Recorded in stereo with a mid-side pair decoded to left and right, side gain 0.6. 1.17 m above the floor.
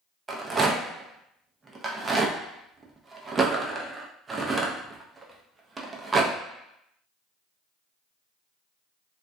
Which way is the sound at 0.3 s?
25° right.